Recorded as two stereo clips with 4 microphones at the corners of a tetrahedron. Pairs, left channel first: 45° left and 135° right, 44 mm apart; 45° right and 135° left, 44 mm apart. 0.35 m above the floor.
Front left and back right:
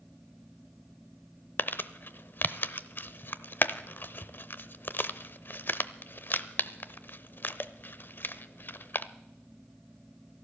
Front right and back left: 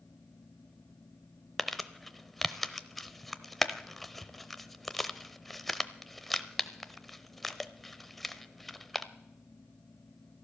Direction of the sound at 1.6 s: 40° left.